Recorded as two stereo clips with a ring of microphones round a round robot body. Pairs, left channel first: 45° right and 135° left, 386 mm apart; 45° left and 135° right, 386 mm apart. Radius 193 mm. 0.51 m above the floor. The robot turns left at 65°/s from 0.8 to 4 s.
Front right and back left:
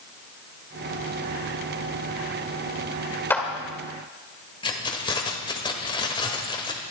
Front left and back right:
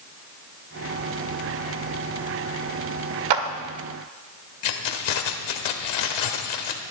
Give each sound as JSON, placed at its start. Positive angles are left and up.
{"t": 3.3, "sound": "a clap", "azimuth_deg": -130, "distance_m": 1.6}
{"t": 4.6, "sound": "keys jangling", "azimuth_deg": 35, "distance_m": 1.6}